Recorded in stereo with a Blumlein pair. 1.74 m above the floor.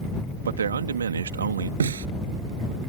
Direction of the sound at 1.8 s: 70° right.